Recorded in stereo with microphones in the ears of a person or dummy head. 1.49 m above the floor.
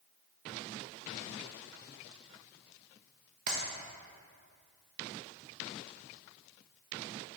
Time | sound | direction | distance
3.5 | a clap | 50° right (ahead or behind) | 1.1 m